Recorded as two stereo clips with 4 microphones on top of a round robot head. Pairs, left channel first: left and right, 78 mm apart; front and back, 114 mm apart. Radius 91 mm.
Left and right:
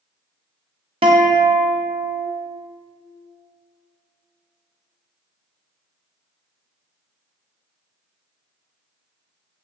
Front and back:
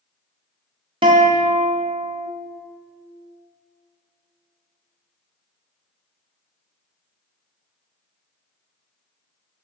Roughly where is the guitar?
Behind right.